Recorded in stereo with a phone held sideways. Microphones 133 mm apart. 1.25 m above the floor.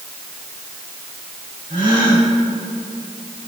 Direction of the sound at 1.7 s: 80° right.